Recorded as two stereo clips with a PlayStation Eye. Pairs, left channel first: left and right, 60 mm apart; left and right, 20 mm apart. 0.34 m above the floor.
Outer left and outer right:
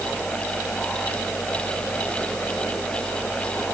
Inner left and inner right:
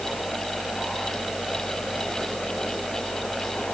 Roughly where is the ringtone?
I don't hear a ringtone.